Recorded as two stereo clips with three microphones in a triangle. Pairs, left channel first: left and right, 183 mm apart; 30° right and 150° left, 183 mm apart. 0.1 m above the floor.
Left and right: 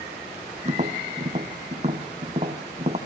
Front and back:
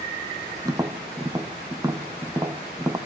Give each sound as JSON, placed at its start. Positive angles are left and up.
{"t": 0.7, "sound": "tapping", "azimuth_deg": -140, "distance_m": 1.7}